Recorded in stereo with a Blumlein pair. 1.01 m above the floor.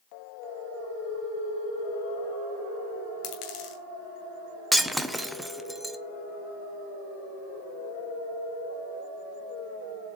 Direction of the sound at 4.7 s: 5° right.